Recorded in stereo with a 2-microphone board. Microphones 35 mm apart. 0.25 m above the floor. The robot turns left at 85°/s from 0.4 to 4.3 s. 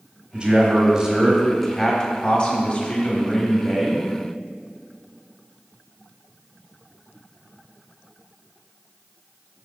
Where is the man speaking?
30° right (ahead or behind), 1.2 m; by 4.1 s 15° right (ahead or behind), 1.2 m.